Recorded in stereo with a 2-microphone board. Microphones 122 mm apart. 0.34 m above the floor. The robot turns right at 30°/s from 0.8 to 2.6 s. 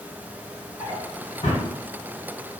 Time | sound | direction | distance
0.8 | a drawer | 45° left (ahead or behind) | 1.8 m